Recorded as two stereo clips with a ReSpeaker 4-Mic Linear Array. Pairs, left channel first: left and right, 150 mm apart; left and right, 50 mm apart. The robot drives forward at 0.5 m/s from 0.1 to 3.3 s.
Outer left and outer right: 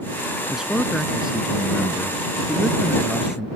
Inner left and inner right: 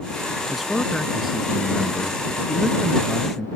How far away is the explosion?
No explosion in this recording.